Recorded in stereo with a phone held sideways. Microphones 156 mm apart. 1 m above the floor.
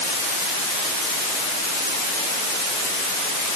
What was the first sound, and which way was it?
Only background noise.